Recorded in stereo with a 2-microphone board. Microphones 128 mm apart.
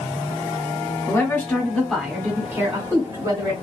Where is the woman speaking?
20° left (ahead or behind), 1.7 m; by 3.5 s 30° right (ahead or behind), 1.8 m.